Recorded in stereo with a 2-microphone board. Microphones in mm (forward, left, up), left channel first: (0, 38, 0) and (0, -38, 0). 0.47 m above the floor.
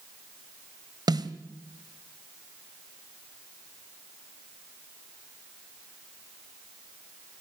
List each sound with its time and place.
1.1 s a snare drum: 75° right (ahead or behind), 1.3 m